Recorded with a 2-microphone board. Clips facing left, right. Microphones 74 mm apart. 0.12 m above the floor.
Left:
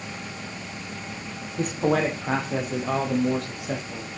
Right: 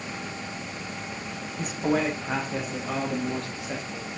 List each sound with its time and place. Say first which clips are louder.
1.6 s a man speaking: left 3 dB; 60° left (ahead or behind), 5 m; by 4.1 s 75° left (ahead or behind), 7 m